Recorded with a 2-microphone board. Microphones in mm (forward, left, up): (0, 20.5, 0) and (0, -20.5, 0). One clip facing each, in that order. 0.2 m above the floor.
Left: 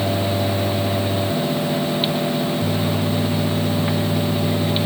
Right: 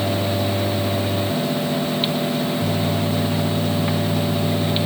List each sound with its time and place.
Only background noise.